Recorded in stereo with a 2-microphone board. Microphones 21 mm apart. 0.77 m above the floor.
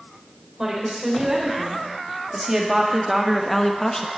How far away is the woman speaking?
About 3.5 m.